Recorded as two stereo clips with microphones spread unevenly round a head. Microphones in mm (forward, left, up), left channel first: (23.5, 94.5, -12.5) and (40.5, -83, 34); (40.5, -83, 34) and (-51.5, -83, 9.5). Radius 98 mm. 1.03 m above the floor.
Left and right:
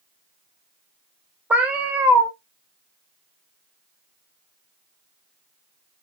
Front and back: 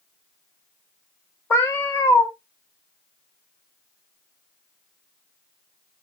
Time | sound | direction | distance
1.5 | a cat meowing | 25° right | 0.9 m